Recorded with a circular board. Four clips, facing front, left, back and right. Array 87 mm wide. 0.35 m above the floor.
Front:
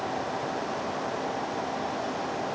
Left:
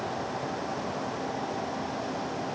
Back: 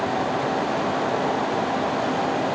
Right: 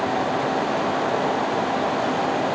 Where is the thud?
I don't hear a thud.